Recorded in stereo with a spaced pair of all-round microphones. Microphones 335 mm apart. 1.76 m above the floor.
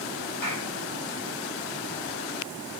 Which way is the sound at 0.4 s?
85° left.